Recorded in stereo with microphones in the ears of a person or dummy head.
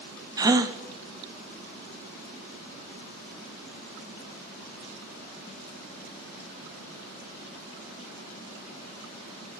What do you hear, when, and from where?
0.4 s a gasp: 20° right (ahead or behind), 0.5 m